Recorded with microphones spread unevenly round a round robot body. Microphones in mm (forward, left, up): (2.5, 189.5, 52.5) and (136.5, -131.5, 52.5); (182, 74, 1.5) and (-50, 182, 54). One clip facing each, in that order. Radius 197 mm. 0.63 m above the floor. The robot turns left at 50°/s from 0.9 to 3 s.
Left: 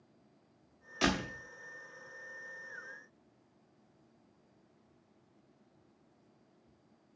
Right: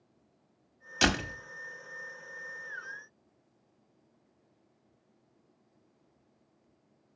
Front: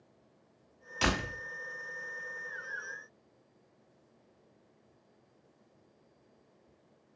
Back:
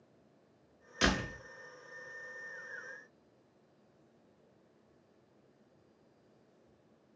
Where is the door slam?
125° right, 1.2 m; by 1.4 s 145° right, 1.2 m.